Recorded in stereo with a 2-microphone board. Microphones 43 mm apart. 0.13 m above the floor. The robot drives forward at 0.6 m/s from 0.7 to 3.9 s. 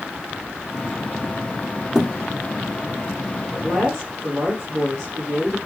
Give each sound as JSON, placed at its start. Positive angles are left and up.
{"t": 1.9, "sound": "a thud", "side_deg": -10, "distance_m": 1.7}
{"t": 3.5, "sound": "a woman speaking", "side_deg": -70, "distance_m": 5.0}